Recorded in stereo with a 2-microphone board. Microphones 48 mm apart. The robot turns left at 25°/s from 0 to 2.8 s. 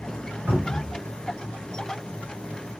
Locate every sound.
0.5 s a cupboard door: 40° right (ahead or behind), 1.9 m; by 0.9 s 30° right (ahead or behind), 1.9 m